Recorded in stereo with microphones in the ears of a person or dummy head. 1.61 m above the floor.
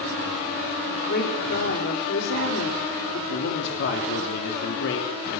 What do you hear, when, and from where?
0.9 s a woman speaking: 60° left (ahead or behind), 5 m
3.3 s a man speaking: 70° left (ahead or behind), 3.5 m